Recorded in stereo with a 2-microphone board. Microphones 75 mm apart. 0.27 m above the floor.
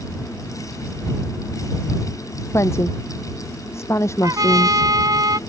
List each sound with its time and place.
2.5 s a woman speaking: 40° left (ahead or behind)
4.2 s a trumpet: 60° right (ahead or behind)